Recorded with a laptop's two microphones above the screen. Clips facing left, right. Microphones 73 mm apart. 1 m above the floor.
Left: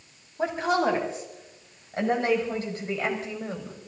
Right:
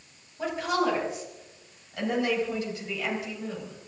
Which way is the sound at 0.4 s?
35° left (ahead or behind).